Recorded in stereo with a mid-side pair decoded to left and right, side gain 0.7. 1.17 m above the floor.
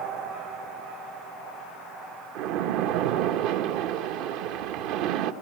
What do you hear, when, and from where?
2.4 s a splash: 65° right, 1.0 m